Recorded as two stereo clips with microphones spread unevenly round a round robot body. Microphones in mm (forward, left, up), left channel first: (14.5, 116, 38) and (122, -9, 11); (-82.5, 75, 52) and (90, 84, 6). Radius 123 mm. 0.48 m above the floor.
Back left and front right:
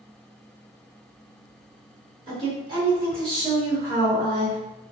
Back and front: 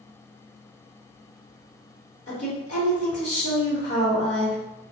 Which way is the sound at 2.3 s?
105° right.